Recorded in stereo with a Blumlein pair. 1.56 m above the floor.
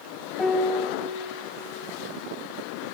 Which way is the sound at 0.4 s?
15° left.